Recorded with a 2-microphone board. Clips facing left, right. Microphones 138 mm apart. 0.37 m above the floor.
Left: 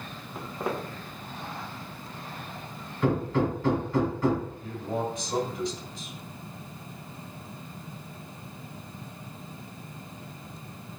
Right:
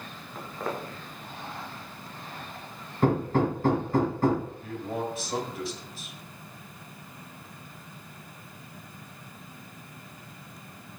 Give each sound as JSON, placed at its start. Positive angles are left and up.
{"t": 0.3, "sound": "footsteps", "side_deg": 10, "distance_m": 2.0}
{"t": 3.0, "sound": "hammering", "side_deg": -50, "distance_m": 1.5}
{"t": 4.6, "sound": "a man speaking", "side_deg": -5, "distance_m": 1.9}